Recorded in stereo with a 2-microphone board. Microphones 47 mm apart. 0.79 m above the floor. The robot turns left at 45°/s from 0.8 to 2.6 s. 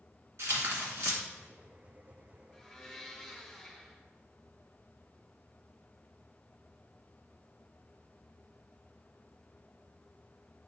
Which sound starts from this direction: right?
Tearing paper, at 0.4 s.